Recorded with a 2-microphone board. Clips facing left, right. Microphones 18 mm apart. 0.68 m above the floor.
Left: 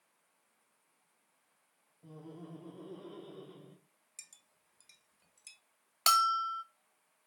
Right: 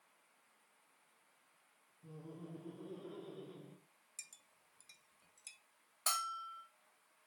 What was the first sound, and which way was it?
Laughter, 50° left (ahead or behind).